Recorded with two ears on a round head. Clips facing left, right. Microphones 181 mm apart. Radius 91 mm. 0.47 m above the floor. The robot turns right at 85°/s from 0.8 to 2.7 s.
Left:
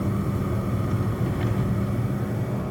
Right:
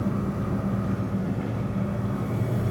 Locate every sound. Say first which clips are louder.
0.0 s an engine running: left 1 dB; 40° left, 1.2 m; by 2.7 s 155° right, 1.2 m